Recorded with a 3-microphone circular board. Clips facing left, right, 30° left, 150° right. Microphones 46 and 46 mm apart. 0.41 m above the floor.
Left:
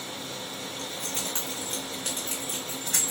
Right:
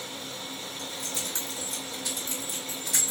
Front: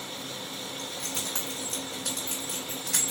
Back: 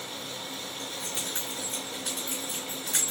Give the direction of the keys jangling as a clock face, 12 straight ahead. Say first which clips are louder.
Left 2 dB, even; 10 o'clock.